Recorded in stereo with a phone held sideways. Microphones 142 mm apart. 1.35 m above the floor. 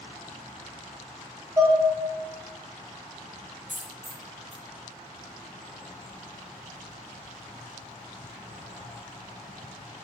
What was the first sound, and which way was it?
Dishes clattering, 20° right (ahead or behind).